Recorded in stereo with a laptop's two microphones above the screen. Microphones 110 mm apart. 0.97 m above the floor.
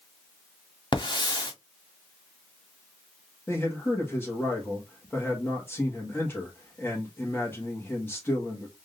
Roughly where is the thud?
I don't hear a thud.